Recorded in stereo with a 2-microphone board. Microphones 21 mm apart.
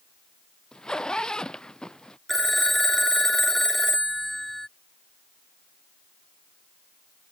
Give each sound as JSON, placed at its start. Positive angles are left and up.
{"t": 0.7, "sound": "a zipper", "side_deg": 40}
{"t": 2.3, "sound": "a phone ringing", "side_deg": 10}